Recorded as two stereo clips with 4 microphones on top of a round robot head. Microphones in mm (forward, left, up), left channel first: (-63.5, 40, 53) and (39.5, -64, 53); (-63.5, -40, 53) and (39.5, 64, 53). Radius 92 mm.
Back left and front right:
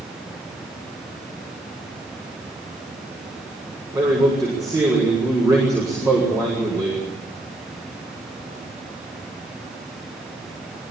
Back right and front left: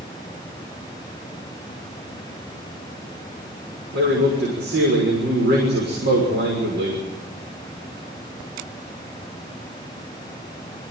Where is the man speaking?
25° left, 6.5 m.